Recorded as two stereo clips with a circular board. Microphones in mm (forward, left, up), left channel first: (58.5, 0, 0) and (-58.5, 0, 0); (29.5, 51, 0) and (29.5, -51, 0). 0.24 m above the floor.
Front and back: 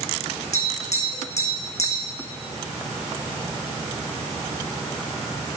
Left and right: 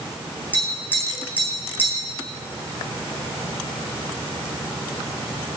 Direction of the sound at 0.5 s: 15° left.